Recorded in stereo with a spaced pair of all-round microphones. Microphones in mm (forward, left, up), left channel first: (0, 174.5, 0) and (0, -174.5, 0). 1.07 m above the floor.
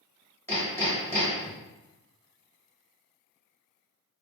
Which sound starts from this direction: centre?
Hammering, at 0.5 s.